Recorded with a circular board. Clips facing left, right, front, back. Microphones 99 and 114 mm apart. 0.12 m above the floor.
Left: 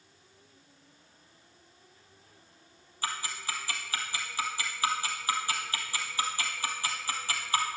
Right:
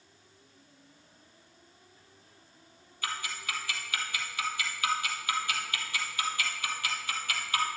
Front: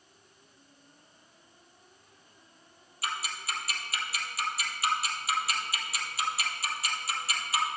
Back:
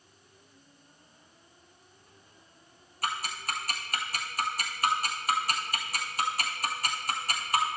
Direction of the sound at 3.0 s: 145° left.